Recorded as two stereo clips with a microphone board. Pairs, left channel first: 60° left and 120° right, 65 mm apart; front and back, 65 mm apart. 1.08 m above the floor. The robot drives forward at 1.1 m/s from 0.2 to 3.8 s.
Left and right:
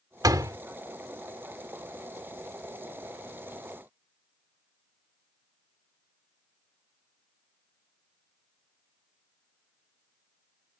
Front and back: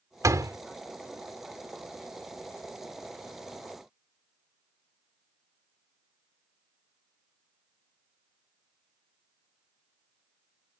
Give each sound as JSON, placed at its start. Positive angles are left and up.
{"t": 0.2, "sound": "a door slam", "azimuth_deg": -145}